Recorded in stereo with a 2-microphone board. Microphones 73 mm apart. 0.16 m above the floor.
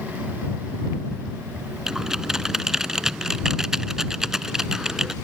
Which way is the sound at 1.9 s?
5° right (ahead or behind).